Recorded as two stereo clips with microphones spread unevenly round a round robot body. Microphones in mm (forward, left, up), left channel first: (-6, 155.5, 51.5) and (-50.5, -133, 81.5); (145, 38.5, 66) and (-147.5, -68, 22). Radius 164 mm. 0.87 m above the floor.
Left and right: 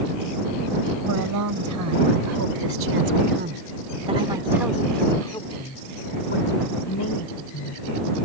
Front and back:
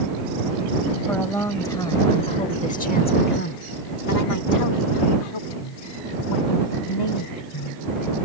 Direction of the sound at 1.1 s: 65° right.